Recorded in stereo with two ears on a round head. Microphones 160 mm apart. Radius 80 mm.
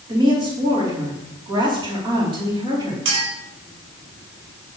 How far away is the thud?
No thud in this recording.